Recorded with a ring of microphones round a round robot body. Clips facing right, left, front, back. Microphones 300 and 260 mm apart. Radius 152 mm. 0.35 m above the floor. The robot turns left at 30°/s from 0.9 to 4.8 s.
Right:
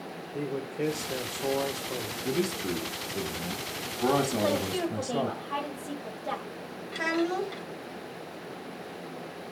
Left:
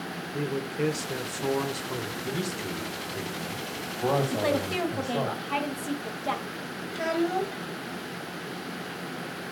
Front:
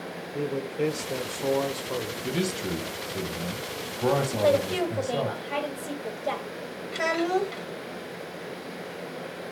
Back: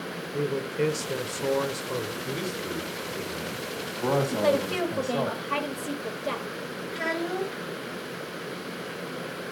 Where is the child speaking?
15° right, 1.1 m.